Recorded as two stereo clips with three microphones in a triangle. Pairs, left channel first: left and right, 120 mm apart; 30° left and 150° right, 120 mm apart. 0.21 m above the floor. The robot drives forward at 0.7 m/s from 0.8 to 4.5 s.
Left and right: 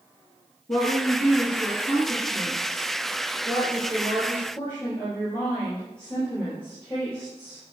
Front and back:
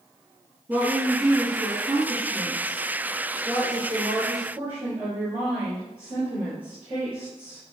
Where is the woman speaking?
145° left, 2 m; by 7.6 s 165° left, 4.5 m.